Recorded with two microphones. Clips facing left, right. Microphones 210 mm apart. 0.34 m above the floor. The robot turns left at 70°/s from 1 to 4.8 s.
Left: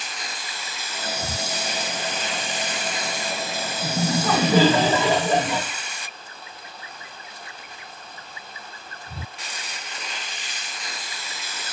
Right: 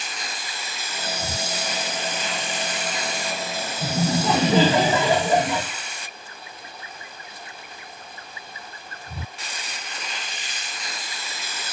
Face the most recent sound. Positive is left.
turn(degrees=-155)